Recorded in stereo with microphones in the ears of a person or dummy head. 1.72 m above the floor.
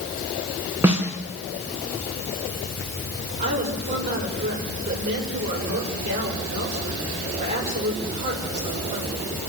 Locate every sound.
0.8 s a snare drum: 10° right (ahead or behind), 4 m
3.4 s a woman speaking: 35° right (ahead or behind), 7 m